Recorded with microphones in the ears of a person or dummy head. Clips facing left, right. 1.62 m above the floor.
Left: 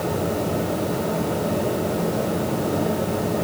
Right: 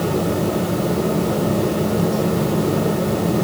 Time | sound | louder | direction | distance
0.0 | a fan | right 4 dB | 60° right (ahead or behind) | 4.5 m